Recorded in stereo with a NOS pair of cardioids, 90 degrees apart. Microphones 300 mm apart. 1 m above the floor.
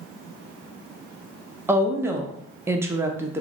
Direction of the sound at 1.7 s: 10° right.